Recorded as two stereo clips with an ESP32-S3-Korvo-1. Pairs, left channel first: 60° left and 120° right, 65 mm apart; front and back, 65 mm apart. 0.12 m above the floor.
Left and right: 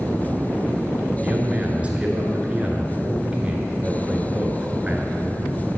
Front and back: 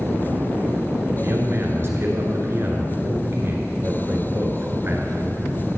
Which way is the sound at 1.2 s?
175° right.